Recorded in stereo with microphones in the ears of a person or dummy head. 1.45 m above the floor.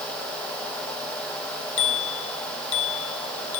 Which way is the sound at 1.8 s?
75° left (ahead or behind).